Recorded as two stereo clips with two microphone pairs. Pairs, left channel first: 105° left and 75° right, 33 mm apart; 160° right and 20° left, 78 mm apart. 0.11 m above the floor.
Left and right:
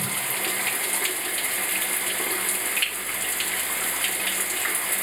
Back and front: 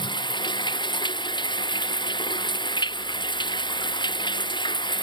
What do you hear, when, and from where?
0.0 s running water: 165° right